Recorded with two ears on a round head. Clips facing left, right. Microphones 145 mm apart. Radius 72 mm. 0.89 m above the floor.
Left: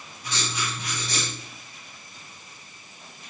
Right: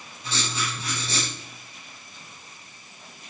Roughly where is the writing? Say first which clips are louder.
Right 1 dB; right.